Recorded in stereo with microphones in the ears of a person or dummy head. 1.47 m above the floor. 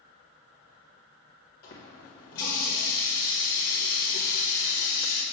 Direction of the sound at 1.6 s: 50° left (ahead or behind).